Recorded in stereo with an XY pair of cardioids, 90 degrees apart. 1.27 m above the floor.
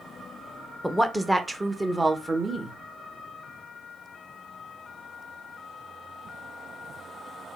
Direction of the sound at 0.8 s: 5° right.